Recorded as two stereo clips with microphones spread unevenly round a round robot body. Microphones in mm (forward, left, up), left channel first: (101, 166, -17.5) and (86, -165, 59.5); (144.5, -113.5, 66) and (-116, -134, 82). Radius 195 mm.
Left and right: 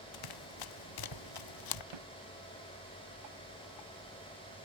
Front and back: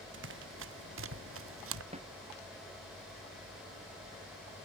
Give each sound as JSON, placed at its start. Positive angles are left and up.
{"t": 0.1, "sound": "running footsteps", "azimuth_deg": 125}
{"t": 1.9, "sound": "a snare drum", "azimuth_deg": -110}